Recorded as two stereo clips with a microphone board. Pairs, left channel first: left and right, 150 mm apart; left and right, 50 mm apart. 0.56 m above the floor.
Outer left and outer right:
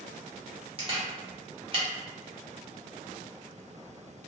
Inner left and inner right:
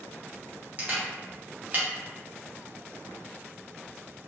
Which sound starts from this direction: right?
A camera shutter, at 0.8 s.